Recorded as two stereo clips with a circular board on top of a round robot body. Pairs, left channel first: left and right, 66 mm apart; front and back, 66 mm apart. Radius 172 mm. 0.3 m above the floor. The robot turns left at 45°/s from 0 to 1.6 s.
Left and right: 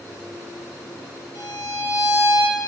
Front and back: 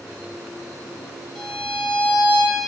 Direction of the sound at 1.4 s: 80° left.